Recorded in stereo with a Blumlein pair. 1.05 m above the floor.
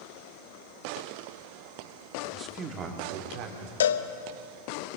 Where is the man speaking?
15° right, 2 m; by 3.7 s 45° right, 3.5 m.